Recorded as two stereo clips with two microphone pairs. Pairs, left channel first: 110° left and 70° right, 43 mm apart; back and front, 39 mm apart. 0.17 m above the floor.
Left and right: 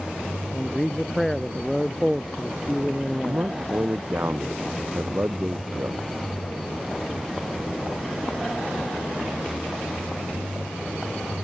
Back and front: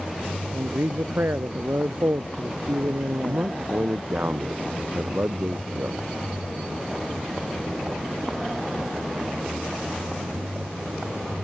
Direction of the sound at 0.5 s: 25° left.